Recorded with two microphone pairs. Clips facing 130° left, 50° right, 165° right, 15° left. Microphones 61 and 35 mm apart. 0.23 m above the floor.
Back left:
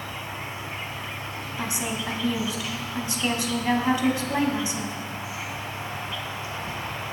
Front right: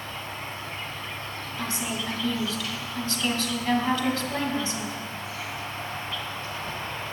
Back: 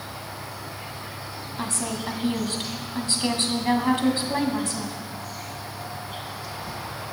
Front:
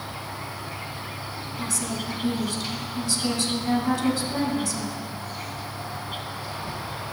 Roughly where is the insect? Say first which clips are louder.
Back left 1 dB, front 2 dB; ahead left.